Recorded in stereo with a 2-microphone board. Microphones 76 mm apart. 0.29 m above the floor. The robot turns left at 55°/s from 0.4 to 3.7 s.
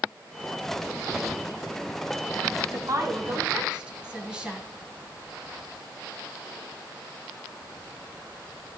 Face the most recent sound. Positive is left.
turn(degrees=-10)  # may be behind; listen again after turning